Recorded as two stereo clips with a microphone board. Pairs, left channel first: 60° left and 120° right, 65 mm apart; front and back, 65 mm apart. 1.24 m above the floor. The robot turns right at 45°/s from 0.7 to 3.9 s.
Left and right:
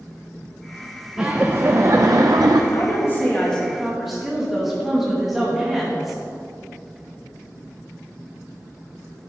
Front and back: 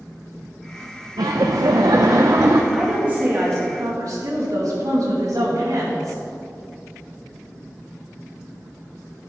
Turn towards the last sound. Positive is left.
turn(degrees=155)